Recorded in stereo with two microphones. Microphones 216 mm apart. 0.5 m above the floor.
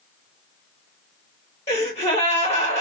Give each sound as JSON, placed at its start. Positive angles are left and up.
{"t": 1.7, "sound": "a gasp", "side_deg": 30, "distance_m": 1.4}